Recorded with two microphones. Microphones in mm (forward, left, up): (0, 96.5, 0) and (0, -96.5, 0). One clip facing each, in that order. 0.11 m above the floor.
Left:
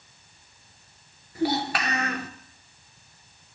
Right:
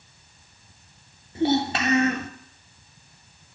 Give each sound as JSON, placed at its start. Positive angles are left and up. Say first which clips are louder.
{"t": 1.4, "sound": "a child speaking", "louder": "right 4 dB", "side_deg": -25, "distance_m": 1.1}